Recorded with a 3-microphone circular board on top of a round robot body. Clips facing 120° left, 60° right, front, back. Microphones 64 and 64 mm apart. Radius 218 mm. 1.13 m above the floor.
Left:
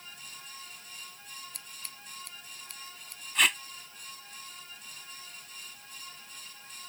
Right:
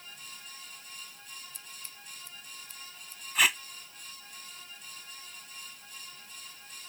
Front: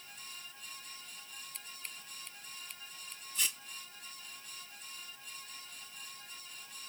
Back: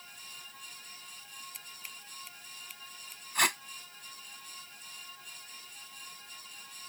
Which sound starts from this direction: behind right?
Tape being pulled, at 3.4 s.